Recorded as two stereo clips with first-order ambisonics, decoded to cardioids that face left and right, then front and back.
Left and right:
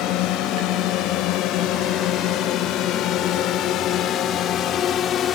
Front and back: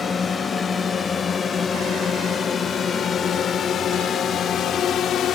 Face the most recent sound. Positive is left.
turn(degrees=45)